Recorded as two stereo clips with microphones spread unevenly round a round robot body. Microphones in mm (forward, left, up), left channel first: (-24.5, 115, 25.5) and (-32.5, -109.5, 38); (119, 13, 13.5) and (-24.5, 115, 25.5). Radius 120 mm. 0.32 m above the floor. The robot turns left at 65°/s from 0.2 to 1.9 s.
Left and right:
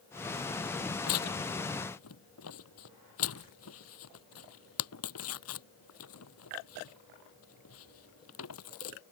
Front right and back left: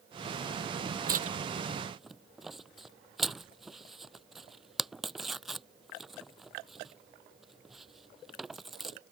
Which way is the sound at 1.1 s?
110° left.